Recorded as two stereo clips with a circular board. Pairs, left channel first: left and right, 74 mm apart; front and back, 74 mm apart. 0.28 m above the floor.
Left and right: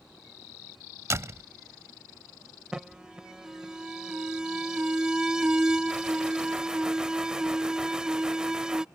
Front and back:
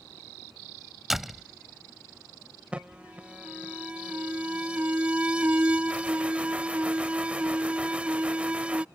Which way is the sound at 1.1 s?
95° right.